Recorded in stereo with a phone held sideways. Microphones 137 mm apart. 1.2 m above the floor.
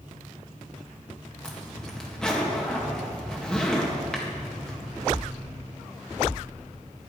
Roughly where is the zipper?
Centre.